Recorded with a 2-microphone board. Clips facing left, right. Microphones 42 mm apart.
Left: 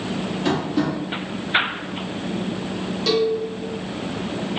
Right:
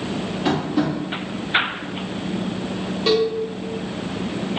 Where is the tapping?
10° right (ahead or behind), 1.1 m.